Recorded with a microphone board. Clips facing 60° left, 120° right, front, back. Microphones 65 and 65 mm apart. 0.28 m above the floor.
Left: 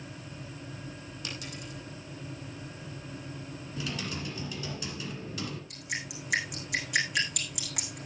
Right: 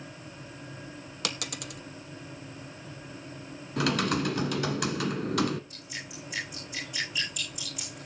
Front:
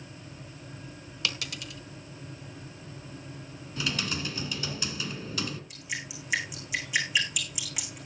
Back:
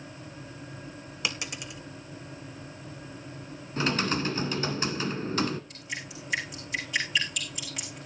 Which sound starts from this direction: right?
A dropped coin, at 1.2 s.